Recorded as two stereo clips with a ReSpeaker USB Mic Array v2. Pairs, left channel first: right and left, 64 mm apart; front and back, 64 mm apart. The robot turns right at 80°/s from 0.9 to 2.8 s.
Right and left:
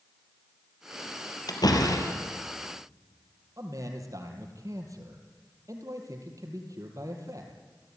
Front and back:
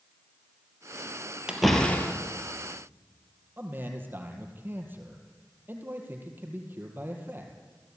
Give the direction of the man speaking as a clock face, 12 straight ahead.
8 o'clock.